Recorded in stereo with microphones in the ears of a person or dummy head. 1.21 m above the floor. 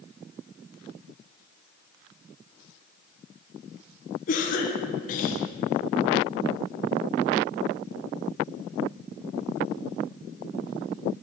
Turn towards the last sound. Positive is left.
turn(degrees=45)  # may be behind; listen again after turning